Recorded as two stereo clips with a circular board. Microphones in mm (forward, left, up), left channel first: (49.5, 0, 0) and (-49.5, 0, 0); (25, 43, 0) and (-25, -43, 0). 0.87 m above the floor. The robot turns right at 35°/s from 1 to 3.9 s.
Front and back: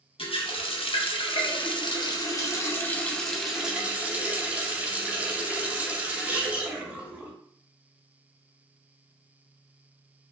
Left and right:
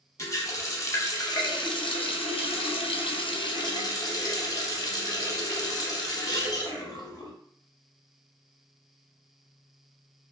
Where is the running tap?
5° left, 0.6 m; by 7.3 s 105° left, 0.6 m.